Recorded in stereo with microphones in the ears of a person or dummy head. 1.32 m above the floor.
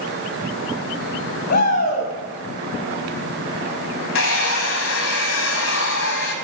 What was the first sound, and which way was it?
A shout, 50° left (ahead or behind).